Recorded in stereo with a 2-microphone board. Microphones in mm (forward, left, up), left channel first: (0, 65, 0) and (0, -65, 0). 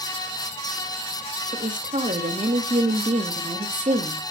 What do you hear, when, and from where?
1.5 s a woman speaking: 65° right (ahead or behind), 2.0 m